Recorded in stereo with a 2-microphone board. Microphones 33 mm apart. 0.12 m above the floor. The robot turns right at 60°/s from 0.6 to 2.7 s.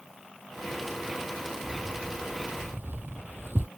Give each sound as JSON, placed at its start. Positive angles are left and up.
{"t": 1.6, "sound": "keys jangling", "side_deg": -15}